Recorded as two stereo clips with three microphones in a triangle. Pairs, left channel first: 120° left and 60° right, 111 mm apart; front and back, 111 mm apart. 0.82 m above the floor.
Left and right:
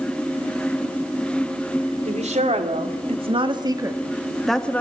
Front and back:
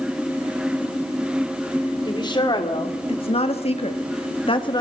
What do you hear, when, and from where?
2.0 s a woman speaking: 50° right, 3 m; by 4.8 s 45° left, 1.6 m